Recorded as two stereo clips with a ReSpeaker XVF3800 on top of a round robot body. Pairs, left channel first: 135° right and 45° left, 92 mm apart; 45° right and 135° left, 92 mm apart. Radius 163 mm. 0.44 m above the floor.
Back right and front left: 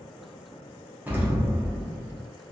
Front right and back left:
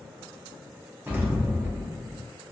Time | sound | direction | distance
1.1 | an explosion | 95° left | 0.9 m